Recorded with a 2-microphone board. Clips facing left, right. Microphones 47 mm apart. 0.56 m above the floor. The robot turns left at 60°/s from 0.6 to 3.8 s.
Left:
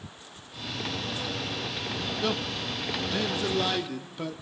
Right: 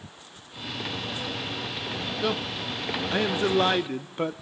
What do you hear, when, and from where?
2.2 s a man speaking: 5° right (ahead or behind), 0.7 m; by 4.4 s 35° right (ahead or behind), 0.7 m